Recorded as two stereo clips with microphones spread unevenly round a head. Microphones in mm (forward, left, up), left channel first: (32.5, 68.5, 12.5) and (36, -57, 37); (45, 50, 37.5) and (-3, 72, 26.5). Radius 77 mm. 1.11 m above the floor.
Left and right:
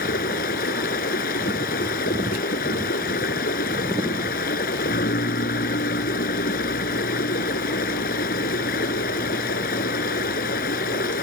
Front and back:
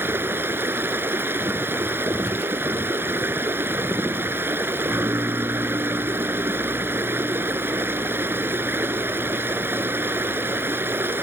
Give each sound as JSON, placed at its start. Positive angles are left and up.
{"t": 0.0, "sound": "running water", "azimuth_deg": 110}